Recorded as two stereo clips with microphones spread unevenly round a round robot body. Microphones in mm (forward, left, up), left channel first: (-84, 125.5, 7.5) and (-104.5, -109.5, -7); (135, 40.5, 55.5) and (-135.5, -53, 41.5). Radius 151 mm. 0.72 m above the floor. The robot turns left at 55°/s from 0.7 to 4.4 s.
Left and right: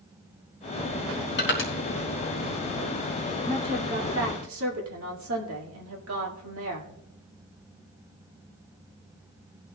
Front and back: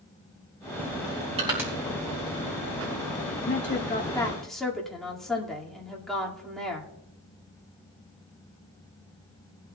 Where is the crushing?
130° left, 3 m; by 1.7 s 110° left, 3 m.